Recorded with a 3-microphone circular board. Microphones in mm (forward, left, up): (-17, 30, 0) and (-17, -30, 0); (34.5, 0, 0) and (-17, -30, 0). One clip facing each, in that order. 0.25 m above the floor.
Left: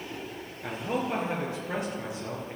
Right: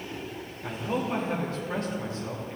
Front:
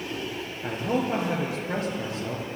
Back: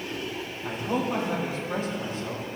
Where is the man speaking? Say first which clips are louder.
Even, front 2 dB; 20° left, 3.5 m.